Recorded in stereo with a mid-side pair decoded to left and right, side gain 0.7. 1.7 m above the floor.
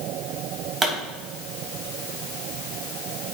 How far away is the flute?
I don't hear a flute.